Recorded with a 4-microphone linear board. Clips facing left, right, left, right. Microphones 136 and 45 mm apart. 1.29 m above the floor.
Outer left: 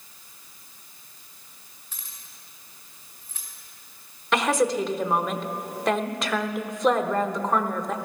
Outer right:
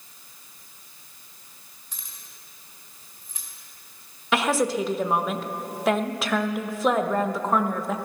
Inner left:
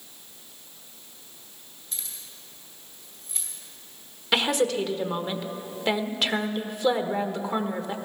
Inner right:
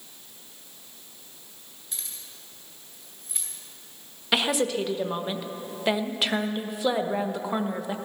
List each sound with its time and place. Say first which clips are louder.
1.9 s keys jangling: outer right 1 dB, even; 15° right (ahead or behind), 4 m
4.3 s a woman speaking: outer left 1 dB, inner left 1 dB; 5° right (ahead or behind), 1.1 m